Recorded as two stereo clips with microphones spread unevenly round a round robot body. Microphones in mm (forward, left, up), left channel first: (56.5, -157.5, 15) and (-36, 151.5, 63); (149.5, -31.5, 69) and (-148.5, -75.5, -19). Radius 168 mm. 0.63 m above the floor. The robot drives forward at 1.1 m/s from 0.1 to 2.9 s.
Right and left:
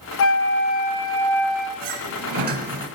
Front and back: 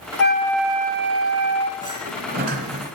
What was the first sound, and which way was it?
A flute, 50° right.